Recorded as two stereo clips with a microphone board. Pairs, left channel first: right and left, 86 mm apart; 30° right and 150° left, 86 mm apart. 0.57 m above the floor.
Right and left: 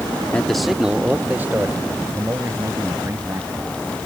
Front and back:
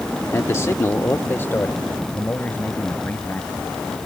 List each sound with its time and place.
0.3 s a man speaking: 25° right; by 3.6 s 40° left